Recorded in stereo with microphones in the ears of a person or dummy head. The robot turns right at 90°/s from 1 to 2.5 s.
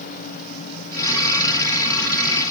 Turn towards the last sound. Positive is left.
No sound to turn to.